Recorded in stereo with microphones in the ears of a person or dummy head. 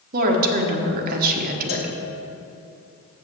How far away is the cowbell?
About 1.6 m.